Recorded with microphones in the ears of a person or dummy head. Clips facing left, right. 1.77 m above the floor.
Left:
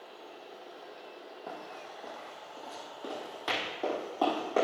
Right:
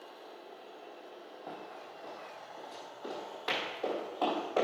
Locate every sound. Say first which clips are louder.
1.5 s running footsteps: left 2 dB; 40° left (ahead or behind), 3.5 m; by 4.7 s 45° left (ahead or behind), 5.5 m